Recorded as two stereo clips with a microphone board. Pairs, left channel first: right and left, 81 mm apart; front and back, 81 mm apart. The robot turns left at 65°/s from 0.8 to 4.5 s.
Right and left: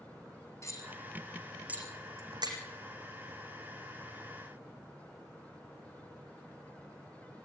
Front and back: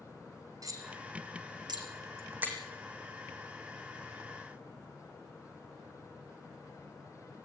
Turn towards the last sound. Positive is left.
turn(degrees=-20)